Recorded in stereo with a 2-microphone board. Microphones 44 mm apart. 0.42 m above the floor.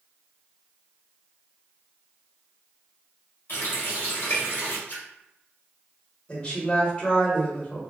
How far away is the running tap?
About 1.3 m.